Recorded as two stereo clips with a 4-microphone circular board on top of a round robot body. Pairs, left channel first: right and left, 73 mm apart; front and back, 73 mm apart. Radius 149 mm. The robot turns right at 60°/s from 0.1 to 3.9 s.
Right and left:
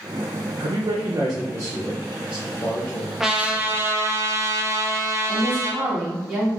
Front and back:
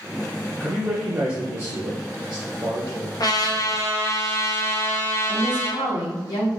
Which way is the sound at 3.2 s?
5° left.